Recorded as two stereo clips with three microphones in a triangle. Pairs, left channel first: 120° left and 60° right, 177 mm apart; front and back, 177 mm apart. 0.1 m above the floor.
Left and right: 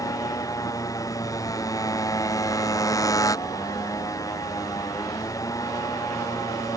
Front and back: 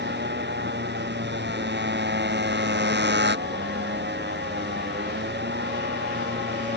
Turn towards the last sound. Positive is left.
turn(degrees=-170)